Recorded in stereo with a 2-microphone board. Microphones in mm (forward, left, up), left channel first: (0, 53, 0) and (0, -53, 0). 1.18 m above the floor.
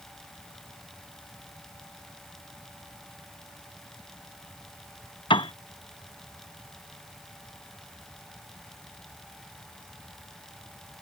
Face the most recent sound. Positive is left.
turn(degrees=50)  # may be behind; listen again after turning